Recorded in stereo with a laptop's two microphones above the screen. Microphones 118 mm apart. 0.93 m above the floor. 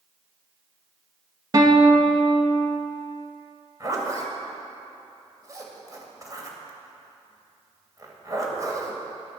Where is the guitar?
35° right (ahead or behind), 1.4 m.